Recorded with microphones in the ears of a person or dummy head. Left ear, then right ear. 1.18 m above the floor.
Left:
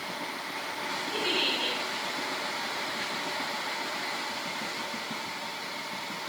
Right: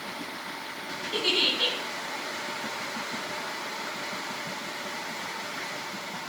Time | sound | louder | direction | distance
1.1 | a giggle | right 4 dB | 35° right (ahead or behind) | 7.5 m